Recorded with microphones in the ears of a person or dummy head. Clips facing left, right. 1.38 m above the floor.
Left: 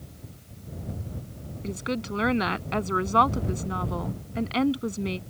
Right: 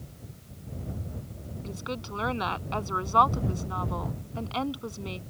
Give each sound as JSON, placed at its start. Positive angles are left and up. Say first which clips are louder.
{"t": 1.6, "sound": "a woman speaking", "louder": "left 7 dB", "side_deg": 30}